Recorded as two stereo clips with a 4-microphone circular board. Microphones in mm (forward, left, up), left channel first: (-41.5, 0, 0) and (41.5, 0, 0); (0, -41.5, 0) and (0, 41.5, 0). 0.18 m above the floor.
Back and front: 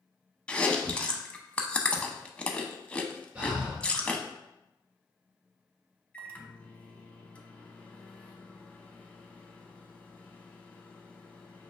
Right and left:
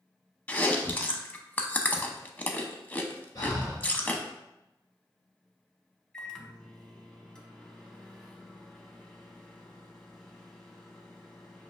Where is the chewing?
125° right, 0.5 m.